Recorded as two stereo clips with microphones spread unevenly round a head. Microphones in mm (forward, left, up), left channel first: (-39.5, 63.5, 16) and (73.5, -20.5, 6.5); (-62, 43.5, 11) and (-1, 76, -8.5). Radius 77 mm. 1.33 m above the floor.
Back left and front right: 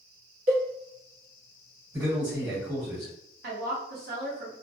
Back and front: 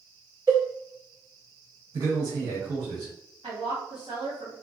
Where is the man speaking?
35° left, 1.1 m.